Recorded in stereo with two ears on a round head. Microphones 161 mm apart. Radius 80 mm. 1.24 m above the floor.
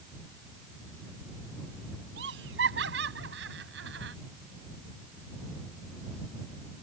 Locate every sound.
2.2 s laughter: 70° right (ahead or behind)